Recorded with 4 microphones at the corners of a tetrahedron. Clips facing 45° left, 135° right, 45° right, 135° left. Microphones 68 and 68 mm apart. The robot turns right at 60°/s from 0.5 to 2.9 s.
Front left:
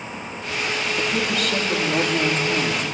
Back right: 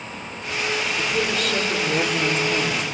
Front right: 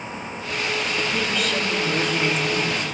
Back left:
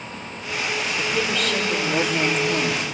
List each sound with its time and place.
1.0 s a woman speaking: 15° left, 3.5 m; by 2.8 s 125° left, 3.5 m